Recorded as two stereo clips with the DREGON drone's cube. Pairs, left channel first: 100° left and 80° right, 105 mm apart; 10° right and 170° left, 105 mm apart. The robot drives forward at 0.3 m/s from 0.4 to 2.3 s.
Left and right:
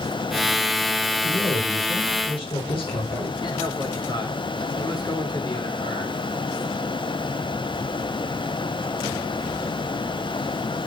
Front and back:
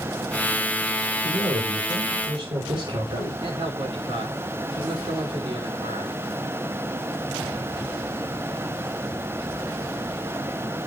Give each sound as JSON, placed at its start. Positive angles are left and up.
{"t": 1.2, "sound": "a man speaking", "azimuth_deg": 125, "distance_m": 5.0}
{"t": 3.4, "sound": "a man speaking", "azimuth_deg": 140, "distance_m": 4.5}